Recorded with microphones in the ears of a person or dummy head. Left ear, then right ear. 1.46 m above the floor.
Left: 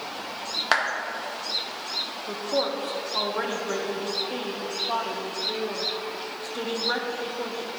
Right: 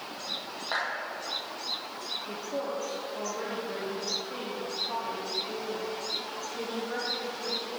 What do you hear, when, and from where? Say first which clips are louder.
0.7 s a clap: left 8 dB; 55° left (ahead or behind), 1.8 m
2.3 s a woman speaking: left 10 dB; 50° left (ahead or behind), 1.5 m